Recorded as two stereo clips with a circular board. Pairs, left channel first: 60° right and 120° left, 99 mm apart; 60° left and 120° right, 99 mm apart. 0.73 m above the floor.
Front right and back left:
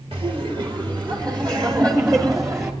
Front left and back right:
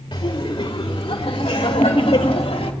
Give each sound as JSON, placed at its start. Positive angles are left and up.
{"t": 0.1, "sound": "laughter", "azimuth_deg": 90, "distance_m": 2.5}